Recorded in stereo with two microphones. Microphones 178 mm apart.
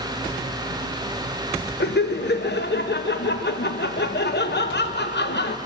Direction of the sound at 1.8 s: 70° left (ahead or behind).